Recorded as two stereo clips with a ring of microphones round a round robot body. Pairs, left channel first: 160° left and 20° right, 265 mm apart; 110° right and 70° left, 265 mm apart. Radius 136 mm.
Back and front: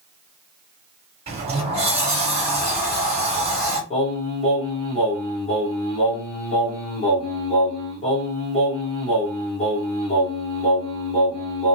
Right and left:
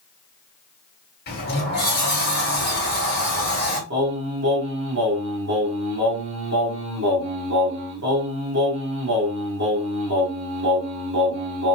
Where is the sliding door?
80° right, 1.5 m.